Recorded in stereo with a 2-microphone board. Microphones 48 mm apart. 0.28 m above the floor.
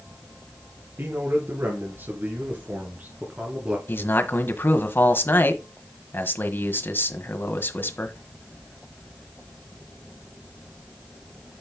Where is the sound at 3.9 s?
45° left (ahead or behind), 1.4 m.